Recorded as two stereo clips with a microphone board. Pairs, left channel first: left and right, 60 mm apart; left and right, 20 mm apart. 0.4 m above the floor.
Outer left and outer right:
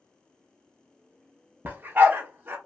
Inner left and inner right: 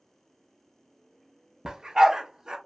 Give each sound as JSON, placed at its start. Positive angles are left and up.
{"t": 1.6, "sound": "a dog barking", "side_deg": -35, "distance_m": 0.6}